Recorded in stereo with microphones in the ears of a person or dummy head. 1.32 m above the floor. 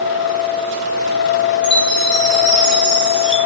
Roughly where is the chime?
Left.